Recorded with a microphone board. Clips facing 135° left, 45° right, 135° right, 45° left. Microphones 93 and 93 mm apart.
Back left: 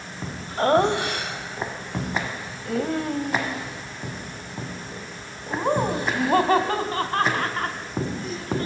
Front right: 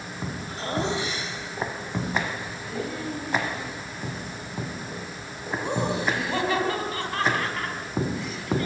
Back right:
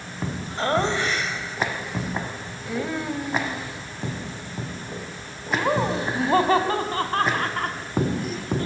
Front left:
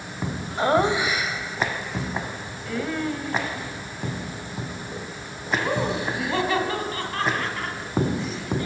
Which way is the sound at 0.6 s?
120° left.